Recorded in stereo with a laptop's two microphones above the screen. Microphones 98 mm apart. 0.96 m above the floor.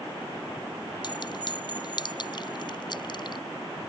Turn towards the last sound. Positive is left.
turn(degrees=50)  # may be behind; listen again after turning